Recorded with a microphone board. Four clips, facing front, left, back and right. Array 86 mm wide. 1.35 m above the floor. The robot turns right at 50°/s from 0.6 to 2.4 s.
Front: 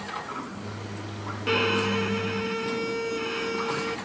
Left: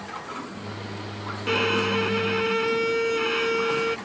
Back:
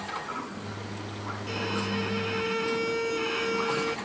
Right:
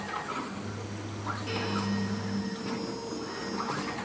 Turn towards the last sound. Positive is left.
turn(degrees=90)